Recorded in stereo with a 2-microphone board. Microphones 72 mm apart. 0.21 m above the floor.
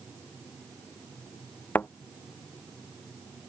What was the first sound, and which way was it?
A thud, 25° left (ahead or behind).